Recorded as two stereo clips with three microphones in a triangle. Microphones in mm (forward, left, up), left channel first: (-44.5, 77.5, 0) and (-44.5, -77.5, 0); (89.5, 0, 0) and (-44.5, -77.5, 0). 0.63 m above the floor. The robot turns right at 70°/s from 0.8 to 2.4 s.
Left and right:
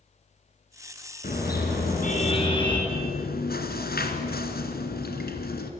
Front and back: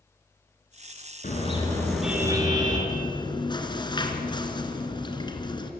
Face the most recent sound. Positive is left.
turn(degrees=90)